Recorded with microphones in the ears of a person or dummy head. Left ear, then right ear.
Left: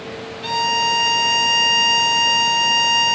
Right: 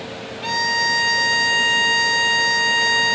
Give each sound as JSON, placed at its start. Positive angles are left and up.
{"t": 0.4, "sound": "a violin", "side_deg": -10, "distance_m": 2.5}